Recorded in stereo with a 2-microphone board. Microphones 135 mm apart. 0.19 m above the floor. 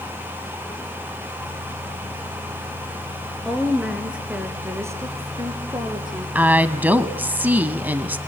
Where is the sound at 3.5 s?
5° left (ahead or behind), 3 m; by 6.2 s 35° right (ahead or behind), 4.5 m.